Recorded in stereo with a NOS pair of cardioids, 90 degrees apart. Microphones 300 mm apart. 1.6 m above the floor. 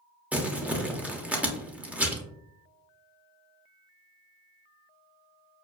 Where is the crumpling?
5° right, 0.9 m.